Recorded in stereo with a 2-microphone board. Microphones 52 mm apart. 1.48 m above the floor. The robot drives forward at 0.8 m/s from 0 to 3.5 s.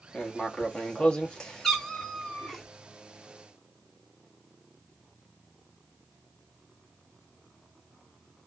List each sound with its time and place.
0.1 s writing: 15° left (ahead or behind), 1.1 m; by 2.6 s 10° left (ahead or behind), 1.6 m
1.6 s a cat meowing: 5° left (ahead or behind), 1.1 m